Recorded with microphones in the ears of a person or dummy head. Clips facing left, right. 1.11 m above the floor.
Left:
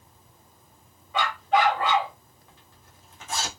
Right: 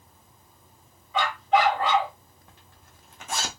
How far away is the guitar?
No guitar in this recording.